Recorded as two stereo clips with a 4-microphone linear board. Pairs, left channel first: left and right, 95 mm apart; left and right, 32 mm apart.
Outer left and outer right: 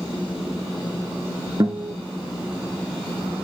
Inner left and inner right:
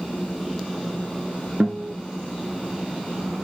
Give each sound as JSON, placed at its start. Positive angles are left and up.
{"t": 1.6, "sound": "a guitar", "side_deg": -45, "distance_m": 1.2}